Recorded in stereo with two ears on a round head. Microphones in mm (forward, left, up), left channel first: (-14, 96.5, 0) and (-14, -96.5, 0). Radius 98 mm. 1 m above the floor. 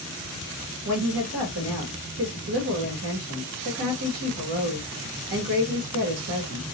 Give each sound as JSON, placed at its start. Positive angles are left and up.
{"t": 0.8, "sound": "a woman speaking", "side_deg": -55, "distance_m": 1.5}